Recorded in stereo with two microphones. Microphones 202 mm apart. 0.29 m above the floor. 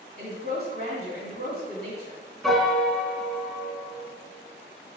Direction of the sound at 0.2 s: 55° left (ahead or behind).